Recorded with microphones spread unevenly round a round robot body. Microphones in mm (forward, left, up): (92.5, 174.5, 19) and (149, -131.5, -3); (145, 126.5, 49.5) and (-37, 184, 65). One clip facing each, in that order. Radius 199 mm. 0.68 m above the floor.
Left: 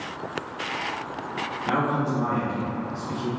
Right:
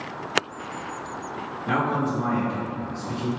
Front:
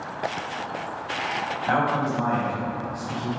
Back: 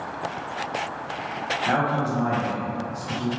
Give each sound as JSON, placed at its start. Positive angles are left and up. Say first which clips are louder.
{"t": 1.7, "sound": "a man speaking", "louder": "even, even", "azimuth_deg": -175, "distance_m": 1.0}